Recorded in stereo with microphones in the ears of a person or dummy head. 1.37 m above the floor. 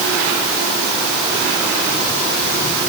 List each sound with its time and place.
Only background noise.